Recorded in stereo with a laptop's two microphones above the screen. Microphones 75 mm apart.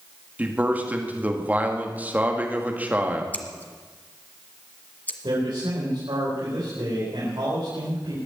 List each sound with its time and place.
0.4 s a man speaking: 20° right (ahead or behind), 1.6 m
3.3 s scissors: 20° left (ahead or behind), 1.4 m
5.2 s a man speaking: 80° right, 4.5 m